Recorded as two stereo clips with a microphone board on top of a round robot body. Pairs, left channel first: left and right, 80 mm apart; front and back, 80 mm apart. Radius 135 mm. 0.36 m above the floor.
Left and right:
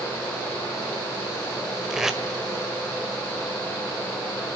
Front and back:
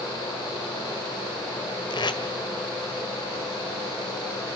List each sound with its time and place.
1.9 s tape being pulled: 5° right, 1.6 m